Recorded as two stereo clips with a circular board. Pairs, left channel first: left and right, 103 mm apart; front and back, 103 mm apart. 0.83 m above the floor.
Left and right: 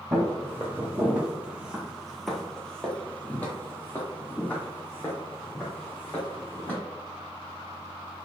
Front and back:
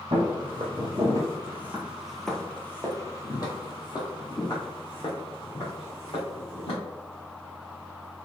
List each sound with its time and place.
0.1 s footsteps: 155° right, 1.4 m; by 6.8 s 25° left, 2.5 m